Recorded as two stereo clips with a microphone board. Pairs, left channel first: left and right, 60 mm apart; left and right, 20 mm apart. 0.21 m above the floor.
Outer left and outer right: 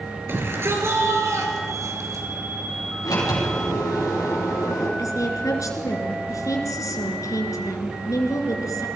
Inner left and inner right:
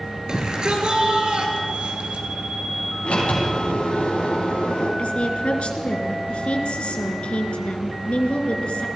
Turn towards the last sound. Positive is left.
turn(degrees=65)  # may be behind; listen again after turning